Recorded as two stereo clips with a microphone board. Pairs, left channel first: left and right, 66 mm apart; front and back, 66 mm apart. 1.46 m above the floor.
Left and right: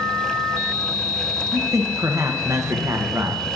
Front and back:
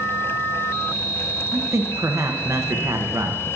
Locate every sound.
1.5 s a man speaking: 130° right, 1.1 m